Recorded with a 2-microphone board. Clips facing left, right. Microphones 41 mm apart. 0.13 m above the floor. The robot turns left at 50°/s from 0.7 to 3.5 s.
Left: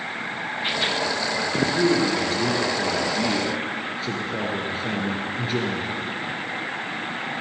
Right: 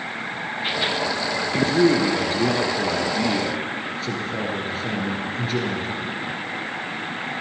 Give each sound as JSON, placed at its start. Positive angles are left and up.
{"t": 1.5, "sound": "a man speaking", "azimuth_deg": -90, "distance_m": 2.5}